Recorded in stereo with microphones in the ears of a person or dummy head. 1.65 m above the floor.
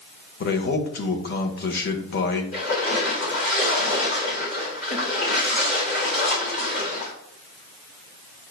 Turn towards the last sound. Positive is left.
turn(degrees=50)  # may be behind; listen again after turning